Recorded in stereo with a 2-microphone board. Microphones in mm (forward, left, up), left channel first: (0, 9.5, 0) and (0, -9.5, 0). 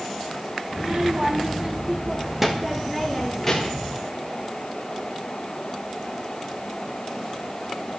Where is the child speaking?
45° right (ahead or behind), 1.8 m; by 3.9 s 20° left (ahead or behind), 1.7 m.